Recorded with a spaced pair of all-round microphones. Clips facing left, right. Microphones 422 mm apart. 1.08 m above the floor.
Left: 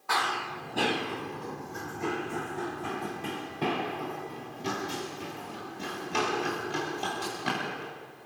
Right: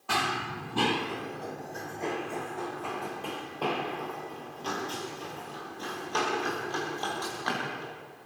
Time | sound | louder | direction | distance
0.1 | running footsteps | right 2 dB | 45° right (ahead or behind) | 1.5 m